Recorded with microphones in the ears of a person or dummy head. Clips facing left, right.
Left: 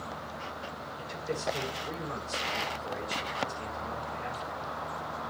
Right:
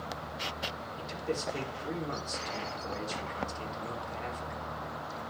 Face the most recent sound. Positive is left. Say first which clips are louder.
# right 1 dB
turn(degrees=-55)  # may be behind; listen again after turning